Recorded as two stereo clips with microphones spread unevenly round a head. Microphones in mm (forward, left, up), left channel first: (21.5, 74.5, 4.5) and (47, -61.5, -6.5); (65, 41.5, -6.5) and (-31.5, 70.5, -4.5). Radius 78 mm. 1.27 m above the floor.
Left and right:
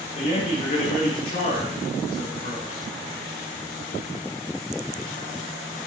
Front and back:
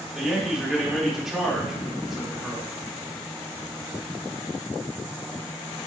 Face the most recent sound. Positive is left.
turn(degrees=75)